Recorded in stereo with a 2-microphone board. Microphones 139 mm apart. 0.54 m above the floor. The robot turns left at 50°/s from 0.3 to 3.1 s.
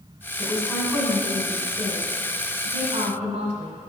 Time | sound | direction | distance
0.4 | a woman speaking | 10° left | 2 m